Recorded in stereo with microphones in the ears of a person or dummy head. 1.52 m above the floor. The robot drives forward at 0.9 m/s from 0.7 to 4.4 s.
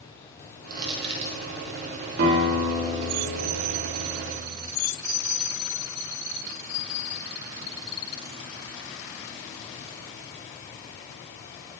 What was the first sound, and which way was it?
Crushing, 25° right (ahead or behind).